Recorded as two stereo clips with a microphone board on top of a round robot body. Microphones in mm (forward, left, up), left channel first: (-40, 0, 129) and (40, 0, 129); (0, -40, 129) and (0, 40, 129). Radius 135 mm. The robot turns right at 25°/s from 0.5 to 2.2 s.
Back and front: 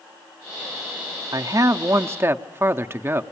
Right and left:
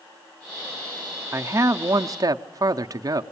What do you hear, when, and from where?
1.3 s a man speaking: 35° left, 0.6 m; by 3.2 s 55° left, 0.6 m